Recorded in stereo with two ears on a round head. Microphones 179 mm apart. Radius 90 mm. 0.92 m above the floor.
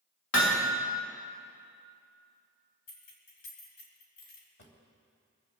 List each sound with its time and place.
0.3 s hammering: 75° left (ahead or behind), 2.5 m
2.9 s keys jangling: 80° left, 3.5 m
4.6 s a drawer: 60° left (ahead or behind), 3 m